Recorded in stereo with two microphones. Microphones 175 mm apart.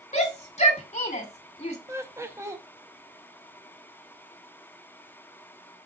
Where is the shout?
35° left (ahead or behind), 1.9 m.